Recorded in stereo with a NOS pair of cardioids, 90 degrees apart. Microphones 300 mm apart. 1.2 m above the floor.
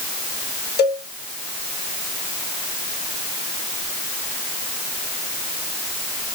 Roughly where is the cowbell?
Ahead left.